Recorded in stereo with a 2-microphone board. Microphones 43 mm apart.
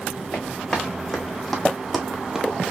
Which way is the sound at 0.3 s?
10° left (ahead or behind).